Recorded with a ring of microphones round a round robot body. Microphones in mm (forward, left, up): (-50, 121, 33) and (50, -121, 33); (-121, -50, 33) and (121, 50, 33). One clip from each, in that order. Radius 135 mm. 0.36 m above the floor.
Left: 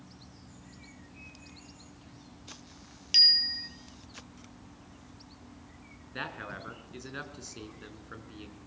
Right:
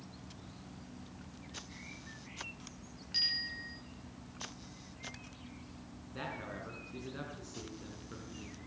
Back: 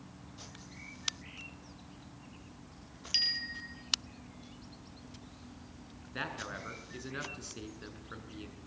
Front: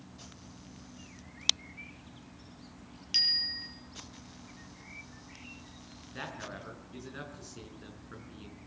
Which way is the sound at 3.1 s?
115° left.